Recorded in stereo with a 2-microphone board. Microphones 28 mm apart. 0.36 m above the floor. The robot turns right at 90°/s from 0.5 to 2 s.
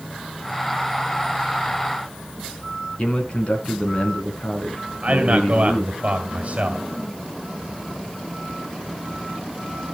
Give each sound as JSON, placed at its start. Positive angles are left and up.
{"t": 3.0, "sound": "a man speaking", "side_deg": 40, "distance_m": 4.0}
{"t": 5.0, "sound": "a man speaking", "side_deg": -50, "distance_m": 2.0}